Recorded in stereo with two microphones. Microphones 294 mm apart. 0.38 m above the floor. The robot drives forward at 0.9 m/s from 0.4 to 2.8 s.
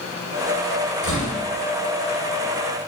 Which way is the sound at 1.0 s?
85° left.